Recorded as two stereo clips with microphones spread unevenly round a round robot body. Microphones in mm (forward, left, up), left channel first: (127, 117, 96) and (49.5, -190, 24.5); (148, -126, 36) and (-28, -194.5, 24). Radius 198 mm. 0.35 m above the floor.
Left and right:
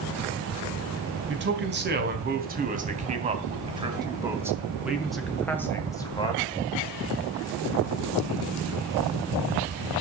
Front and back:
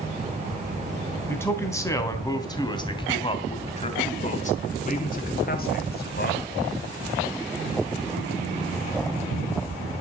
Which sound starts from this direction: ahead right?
A man speaking, at 1.3 s.